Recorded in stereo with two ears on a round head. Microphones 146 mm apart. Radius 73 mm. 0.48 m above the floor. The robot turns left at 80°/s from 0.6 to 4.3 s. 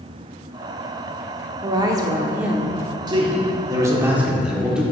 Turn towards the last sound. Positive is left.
turn(degrees=-5)  # may be behind; listen again after turning